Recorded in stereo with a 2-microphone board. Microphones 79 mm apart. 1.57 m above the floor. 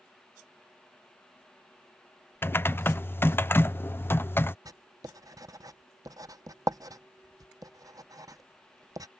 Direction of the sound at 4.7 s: 50° right (ahead or behind).